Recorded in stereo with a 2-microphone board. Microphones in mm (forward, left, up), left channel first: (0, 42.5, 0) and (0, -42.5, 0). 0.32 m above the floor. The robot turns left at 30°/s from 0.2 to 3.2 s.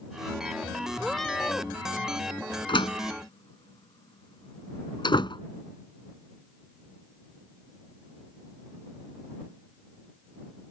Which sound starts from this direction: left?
A door slam, at 2.7 s.